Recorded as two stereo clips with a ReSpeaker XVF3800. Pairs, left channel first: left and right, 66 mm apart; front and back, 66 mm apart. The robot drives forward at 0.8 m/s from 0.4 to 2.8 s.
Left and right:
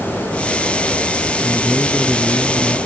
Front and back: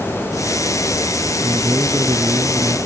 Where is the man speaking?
160° left.